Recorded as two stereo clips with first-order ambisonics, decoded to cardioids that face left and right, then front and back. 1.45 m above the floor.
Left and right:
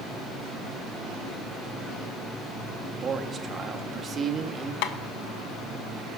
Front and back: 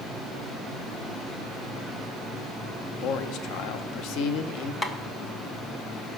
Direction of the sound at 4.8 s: 80° left.